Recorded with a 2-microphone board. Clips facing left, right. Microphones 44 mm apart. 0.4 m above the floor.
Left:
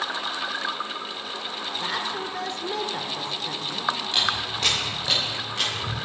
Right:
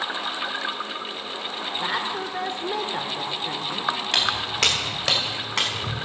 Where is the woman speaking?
15° right (ahead or behind), 1.0 m.